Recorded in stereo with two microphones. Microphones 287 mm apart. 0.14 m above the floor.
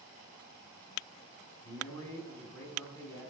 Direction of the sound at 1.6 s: 10° left (ahead or behind).